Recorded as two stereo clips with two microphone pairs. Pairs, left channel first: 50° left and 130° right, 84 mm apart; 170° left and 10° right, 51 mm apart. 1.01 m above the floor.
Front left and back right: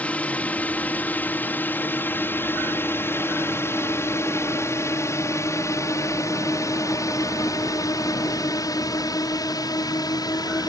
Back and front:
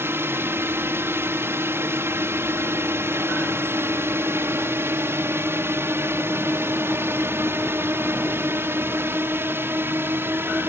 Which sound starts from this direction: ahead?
A drone, at 0.0 s.